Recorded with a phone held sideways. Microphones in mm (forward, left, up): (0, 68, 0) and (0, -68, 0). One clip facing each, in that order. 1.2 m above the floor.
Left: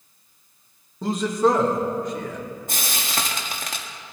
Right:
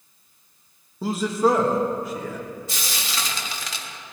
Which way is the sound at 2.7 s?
50° left (ahead or behind).